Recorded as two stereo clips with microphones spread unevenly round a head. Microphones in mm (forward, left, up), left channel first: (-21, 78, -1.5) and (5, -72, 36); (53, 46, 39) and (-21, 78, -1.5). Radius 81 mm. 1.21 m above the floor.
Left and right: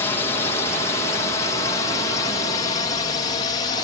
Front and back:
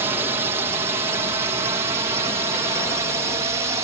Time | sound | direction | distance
0.0 | a drone | 160° left | ?